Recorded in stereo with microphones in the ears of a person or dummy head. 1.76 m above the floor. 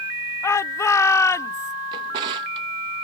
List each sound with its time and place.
0.4 s a shout: 15° left (ahead or behind)
1.9 s a drawer: 20° right (ahead or behind)